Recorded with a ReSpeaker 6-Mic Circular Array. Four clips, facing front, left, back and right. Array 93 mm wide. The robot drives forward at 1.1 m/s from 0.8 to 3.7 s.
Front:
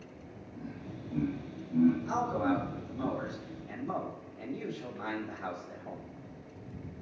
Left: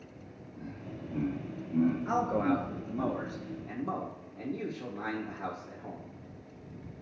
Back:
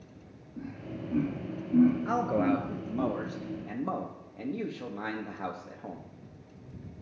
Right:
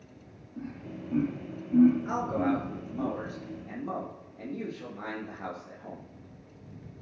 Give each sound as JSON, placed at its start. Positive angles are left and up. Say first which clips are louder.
{"t": 0.6, "sound": "laughter", "louder": "right 4 dB, back 5 dB", "azimuth_deg": -125, "distance_m": 4.5}
{"t": 2.0, "sound": "a man speaking", "louder": "even, back 3 dB", "azimuth_deg": 180, "distance_m": 1.6}